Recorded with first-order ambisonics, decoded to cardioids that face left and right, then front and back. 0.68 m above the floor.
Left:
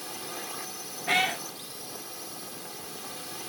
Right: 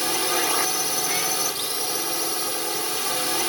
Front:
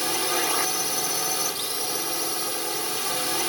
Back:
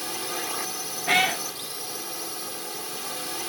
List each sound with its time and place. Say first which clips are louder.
0.0 s a drone: right 15 dB, front 6 dB; 65° right
1.1 s a cat meowing: even, back 6 dB; 160° left